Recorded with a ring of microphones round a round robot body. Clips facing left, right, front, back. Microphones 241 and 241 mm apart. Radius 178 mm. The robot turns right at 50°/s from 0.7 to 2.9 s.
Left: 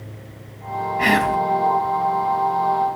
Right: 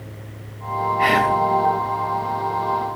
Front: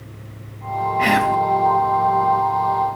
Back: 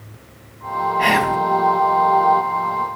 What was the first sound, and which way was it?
Whispering, 60° left.